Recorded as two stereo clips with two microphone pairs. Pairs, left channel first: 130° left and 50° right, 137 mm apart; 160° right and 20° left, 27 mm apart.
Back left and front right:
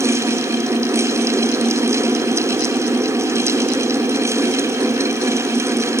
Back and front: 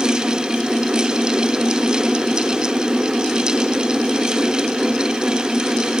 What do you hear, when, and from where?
Only background noise.